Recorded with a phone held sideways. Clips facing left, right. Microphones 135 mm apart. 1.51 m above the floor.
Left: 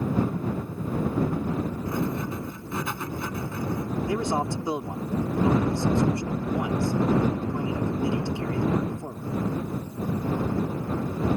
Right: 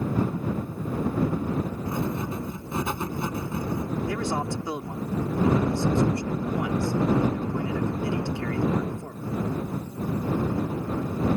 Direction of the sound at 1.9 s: 20° right (ahead or behind).